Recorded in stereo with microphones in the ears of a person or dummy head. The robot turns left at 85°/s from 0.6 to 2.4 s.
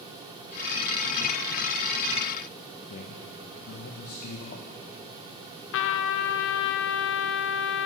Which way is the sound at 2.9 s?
50° left (ahead or behind).